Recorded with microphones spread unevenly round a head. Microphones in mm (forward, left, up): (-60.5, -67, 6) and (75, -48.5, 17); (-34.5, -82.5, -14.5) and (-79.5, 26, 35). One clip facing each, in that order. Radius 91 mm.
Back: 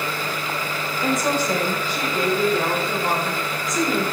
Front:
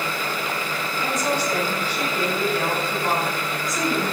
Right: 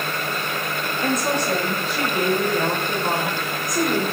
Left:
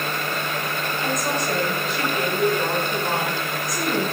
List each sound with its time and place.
1.0 s a woman speaking: 130° right, 6 m; by 4.0 s 100° right, 5.5 m